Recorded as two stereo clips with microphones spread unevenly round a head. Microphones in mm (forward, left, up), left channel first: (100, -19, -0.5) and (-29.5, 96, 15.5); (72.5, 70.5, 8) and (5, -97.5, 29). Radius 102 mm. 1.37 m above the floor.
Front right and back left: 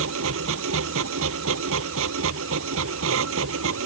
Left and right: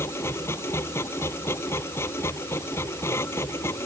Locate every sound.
0.0 s a machine running: 150° left